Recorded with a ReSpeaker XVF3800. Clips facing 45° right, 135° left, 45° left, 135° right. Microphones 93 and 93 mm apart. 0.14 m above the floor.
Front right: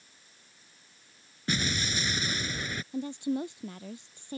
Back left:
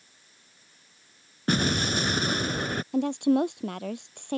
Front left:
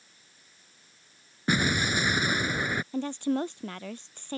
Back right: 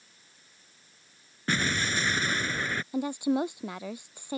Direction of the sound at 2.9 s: 150° left.